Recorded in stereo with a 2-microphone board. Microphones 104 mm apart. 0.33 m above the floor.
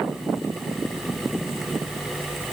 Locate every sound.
Only background noise.